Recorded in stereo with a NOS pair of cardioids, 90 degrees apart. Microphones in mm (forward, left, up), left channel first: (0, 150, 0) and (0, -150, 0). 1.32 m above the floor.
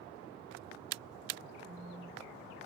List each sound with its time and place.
1.6 s a phone buzzing: 10° left, 1.0 m